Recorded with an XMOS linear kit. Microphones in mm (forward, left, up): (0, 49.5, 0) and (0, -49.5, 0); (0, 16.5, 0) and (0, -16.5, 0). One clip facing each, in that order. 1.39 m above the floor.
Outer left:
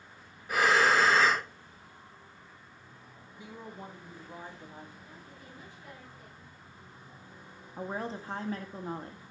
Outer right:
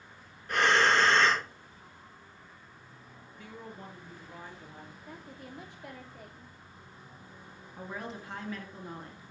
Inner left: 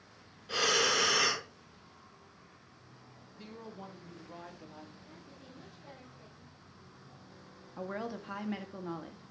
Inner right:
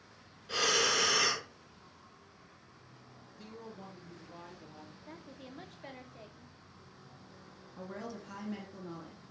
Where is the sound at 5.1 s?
85° right, 3 m.